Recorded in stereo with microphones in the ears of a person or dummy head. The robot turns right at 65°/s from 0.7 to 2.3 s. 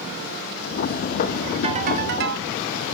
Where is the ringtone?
150° right, 2.0 m; by 2.5 s 110° right, 2.0 m.